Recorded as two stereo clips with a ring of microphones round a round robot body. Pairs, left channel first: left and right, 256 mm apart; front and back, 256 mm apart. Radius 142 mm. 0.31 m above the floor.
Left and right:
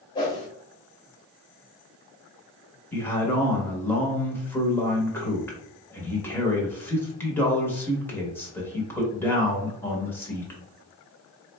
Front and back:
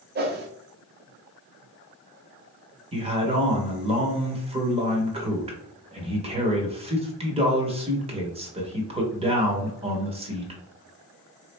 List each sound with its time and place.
0.1 s a whoosh: 155° left, 0.9 m
2.9 s a man speaking: 160° left, 0.9 m